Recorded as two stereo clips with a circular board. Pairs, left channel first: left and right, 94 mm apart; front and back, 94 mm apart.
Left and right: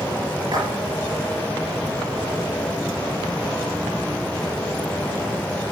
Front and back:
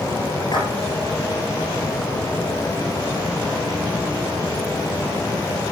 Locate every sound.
0.5 s a splash: 45° right, 6.5 m